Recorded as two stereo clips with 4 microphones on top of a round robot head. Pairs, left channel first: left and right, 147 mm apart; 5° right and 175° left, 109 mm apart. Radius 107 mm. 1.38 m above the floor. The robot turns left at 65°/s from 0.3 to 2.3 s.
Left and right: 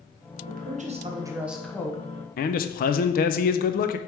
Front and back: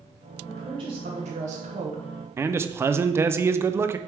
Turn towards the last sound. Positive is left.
turn(degrees=110)